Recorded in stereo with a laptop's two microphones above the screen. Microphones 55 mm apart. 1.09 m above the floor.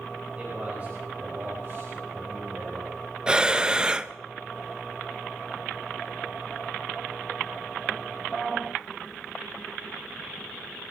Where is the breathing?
15° right (ahead or behind), 0.5 m.